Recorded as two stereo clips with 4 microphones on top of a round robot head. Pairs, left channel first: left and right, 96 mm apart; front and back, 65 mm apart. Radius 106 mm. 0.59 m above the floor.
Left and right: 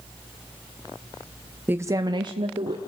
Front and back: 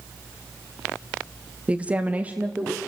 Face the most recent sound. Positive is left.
turn(degrees=-110)